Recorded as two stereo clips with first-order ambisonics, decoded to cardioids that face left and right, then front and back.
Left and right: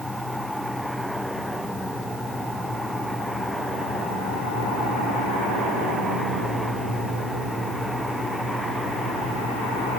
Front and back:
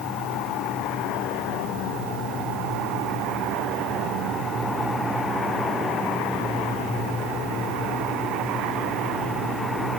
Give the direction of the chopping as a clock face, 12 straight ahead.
I don't hear chopping.